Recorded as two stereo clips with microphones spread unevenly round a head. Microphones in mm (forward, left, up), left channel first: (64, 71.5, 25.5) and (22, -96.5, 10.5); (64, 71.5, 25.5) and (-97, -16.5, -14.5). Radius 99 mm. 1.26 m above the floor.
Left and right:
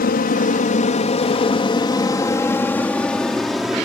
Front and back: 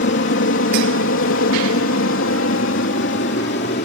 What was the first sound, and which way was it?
An aircraft, 50° left.